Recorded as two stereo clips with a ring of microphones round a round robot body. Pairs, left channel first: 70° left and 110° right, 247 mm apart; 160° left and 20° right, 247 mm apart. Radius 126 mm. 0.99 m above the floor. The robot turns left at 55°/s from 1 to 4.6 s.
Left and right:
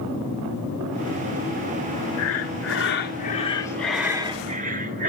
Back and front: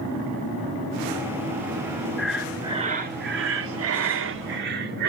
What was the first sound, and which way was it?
Breathing, 75° left.